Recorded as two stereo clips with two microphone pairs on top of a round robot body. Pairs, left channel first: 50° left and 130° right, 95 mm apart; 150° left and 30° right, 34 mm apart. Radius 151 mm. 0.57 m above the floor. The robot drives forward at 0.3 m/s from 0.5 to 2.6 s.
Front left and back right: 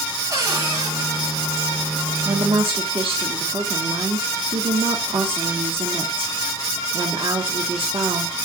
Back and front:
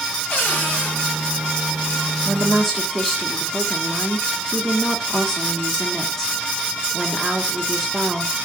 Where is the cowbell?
I don't hear a cowbell.